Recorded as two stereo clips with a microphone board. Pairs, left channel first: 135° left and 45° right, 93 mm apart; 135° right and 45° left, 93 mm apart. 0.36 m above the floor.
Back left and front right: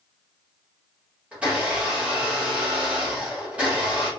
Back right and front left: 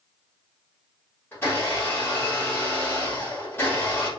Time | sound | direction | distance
1.3 | a blender | 105° right | 1.4 m